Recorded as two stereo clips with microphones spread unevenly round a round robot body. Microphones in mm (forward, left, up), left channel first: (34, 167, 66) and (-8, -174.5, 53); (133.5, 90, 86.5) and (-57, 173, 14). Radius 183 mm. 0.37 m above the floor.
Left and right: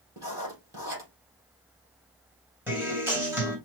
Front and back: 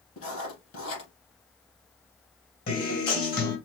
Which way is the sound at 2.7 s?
15° right.